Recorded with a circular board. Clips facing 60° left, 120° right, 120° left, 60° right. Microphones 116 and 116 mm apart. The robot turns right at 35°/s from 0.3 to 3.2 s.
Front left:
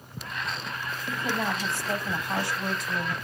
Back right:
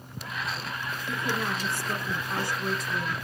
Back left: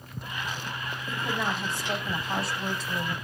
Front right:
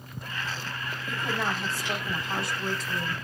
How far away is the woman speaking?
About 3.5 m.